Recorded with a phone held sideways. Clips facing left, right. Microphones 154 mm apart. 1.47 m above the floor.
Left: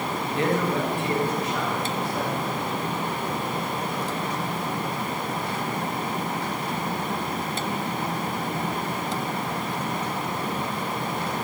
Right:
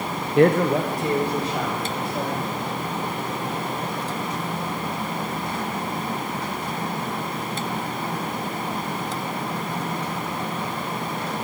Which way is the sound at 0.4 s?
60° right (ahead or behind).